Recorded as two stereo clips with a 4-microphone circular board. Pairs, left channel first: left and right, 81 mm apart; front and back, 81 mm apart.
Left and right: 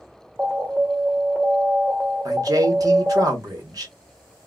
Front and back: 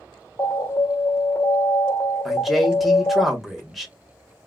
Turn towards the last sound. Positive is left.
turn(degrees=-90)